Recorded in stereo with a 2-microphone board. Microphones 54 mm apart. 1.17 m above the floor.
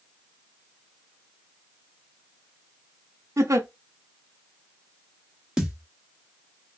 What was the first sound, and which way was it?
A giggle, 75° right (ahead or behind).